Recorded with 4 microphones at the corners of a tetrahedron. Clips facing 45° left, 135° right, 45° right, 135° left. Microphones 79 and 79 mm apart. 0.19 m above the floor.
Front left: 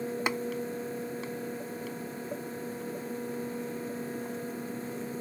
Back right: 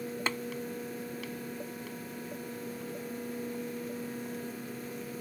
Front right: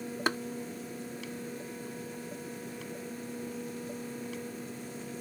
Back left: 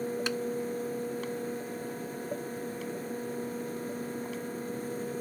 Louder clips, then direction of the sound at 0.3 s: Front left 2 dB, front right 2 dB; 25° right.